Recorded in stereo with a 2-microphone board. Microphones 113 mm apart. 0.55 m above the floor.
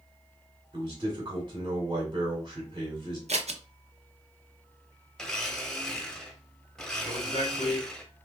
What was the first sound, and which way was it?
A man speaking, 40° right (ahead or behind).